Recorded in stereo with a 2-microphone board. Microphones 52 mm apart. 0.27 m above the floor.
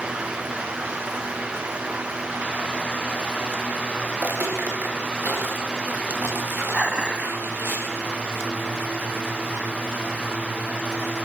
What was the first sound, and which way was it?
Footsteps, 30° right (ahead or behind).